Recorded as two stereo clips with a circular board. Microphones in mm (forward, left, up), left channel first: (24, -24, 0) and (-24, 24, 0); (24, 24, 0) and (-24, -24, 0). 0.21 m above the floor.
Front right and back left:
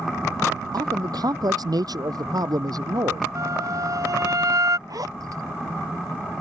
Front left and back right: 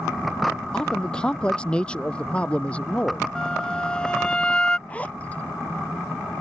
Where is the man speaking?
120° left; by 3.3 s 115° left.